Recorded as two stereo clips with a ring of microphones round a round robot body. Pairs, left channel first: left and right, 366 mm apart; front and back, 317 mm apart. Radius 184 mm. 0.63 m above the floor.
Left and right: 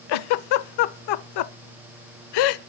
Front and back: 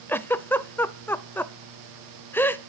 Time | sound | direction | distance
0.1 | a giggle | 85° left | 0.5 m